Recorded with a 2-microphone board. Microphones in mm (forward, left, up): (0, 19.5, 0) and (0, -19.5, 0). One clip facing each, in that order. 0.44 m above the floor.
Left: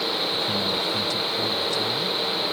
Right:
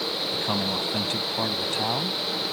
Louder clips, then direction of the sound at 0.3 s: Left 2 dB; 45° right (ahead or behind).